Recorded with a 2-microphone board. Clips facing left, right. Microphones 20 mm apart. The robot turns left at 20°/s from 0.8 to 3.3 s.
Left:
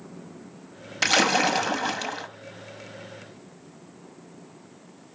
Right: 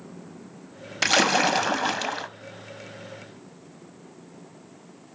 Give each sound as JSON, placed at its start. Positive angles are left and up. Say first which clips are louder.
{"t": 1.0, "sound": "a splash", "louder": "even", "side_deg": 0, "distance_m": 0.5}